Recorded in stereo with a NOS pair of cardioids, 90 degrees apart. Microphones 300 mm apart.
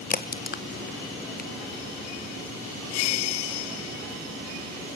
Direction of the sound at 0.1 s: 30° left.